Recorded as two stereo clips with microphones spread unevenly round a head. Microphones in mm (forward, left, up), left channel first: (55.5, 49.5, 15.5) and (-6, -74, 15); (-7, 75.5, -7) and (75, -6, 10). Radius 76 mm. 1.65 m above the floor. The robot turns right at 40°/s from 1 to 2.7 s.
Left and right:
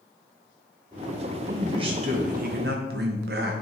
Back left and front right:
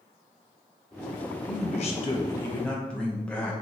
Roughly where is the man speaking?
Behind.